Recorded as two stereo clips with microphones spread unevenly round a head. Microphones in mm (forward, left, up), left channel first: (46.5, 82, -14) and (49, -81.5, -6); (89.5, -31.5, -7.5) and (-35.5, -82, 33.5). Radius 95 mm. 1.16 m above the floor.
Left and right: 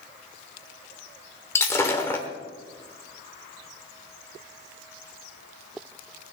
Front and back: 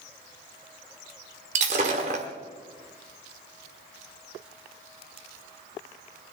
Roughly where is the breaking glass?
Behind.